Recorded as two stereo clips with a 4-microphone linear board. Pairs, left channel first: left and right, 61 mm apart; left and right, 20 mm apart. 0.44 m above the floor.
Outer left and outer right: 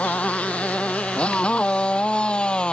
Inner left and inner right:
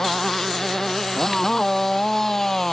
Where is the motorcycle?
20° left (ahead or behind); by 2.7 s 15° left (ahead or behind).